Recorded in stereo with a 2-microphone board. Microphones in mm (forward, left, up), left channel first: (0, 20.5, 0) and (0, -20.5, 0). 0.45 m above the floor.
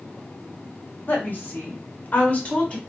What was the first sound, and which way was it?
A woman speaking, 50° left (ahead or behind).